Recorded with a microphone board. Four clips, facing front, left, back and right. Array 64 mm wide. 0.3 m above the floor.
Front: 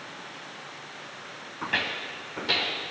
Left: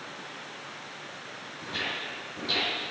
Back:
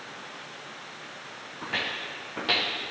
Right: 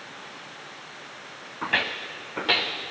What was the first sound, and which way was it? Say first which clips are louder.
Footsteps: right 8 dB, front 3 dB; 75° right.